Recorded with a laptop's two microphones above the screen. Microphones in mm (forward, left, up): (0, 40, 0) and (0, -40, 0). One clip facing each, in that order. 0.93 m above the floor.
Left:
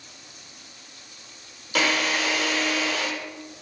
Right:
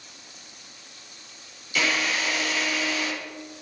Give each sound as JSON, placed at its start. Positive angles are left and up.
{"t": 1.8, "sound": "a drill", "side_deg": 65, "distance_m": 1.4}